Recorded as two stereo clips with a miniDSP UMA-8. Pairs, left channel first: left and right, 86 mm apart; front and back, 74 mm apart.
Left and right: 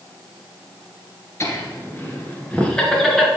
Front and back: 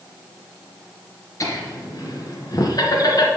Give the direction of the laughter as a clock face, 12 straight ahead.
11 o'clock.